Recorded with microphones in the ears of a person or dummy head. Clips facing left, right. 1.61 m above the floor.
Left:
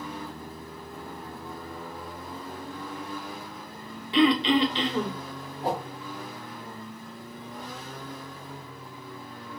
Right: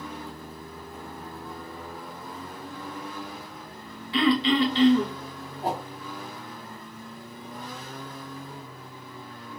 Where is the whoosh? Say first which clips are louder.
Left 1 dB; 15° right (ahead or behind), 2 m.